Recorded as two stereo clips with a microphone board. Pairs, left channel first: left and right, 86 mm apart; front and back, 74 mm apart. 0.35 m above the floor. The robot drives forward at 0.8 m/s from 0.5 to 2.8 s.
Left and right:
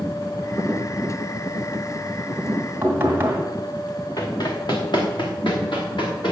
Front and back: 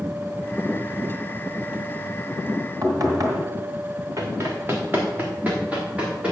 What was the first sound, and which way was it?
Knocking, 155° right.